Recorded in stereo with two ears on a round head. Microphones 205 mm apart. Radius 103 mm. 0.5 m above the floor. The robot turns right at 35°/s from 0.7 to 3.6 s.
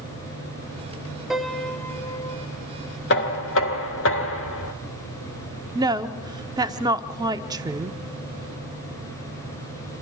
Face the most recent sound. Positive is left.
turn(degrees=-15)  # may be behind; listen again after turning